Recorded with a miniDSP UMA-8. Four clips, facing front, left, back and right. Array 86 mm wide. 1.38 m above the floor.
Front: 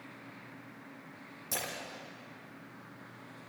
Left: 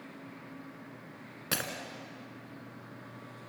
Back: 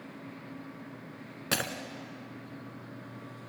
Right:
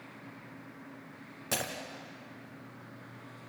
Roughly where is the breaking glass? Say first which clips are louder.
Right 1 dB, back 7 dB; behind left.